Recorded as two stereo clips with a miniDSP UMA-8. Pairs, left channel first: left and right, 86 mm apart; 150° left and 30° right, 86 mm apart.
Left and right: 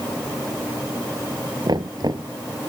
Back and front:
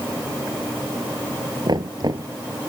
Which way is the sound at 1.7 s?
60° right.